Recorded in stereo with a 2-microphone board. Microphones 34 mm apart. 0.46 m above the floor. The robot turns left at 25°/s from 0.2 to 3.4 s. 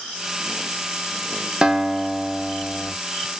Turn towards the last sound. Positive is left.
turn(degrees=165)